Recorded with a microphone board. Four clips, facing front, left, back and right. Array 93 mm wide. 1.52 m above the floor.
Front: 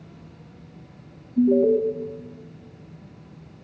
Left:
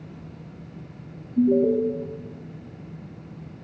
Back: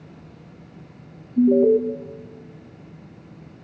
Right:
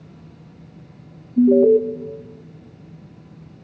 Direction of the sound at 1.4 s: 110° right.